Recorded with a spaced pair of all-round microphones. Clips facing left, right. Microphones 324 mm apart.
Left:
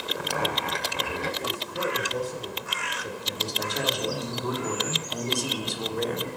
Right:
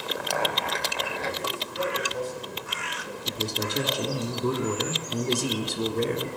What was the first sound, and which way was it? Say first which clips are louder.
A zipper: even; 40° left (ahead or behind).